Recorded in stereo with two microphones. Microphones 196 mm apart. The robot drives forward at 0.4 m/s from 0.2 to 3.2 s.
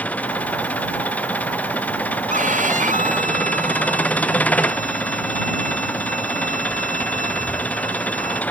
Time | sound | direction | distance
0.0 | an engine running | 5° left (ahead or behind) | ?
2.3 | a violin | 40° right (ahead or behind) | ?